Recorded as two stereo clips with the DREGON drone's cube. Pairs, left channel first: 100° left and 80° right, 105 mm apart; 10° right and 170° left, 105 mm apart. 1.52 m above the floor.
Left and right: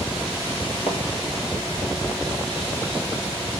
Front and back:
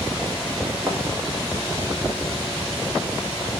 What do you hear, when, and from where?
0.9 s a thud: 100° left, 3.5 m